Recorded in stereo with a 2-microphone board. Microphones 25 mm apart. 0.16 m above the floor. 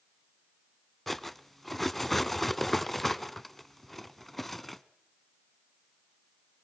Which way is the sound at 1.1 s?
5° left (ahead or behind).